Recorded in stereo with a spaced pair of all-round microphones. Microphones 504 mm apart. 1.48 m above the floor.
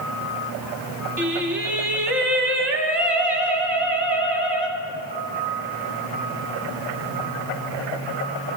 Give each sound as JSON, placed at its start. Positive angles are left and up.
{"t": 1.2, "sound": "singing", "side_deg": -55, "distance_m": 1.4}